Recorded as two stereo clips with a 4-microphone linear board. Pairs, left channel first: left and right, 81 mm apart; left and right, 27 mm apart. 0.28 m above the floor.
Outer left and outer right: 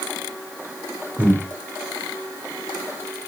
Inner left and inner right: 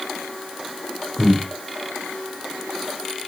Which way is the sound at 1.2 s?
20° right (ahead or behind).